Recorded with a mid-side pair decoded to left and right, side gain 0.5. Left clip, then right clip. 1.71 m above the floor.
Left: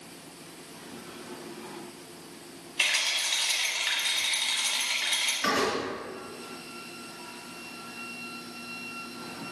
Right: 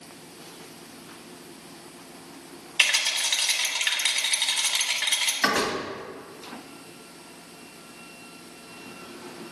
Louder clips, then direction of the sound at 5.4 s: Right 3 dB; 65° right.